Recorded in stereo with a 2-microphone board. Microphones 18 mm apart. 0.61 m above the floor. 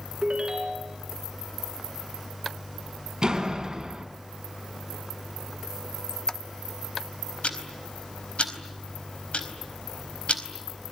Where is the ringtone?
55° right (ahead or behind), 3.5 m.